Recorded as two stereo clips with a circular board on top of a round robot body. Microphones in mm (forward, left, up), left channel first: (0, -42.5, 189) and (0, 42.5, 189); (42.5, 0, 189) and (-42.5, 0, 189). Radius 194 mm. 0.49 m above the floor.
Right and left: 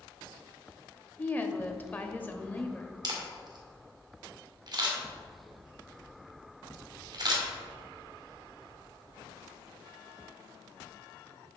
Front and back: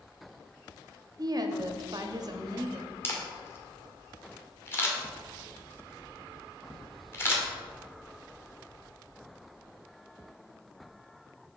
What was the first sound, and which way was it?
A woman speaking, 155° right.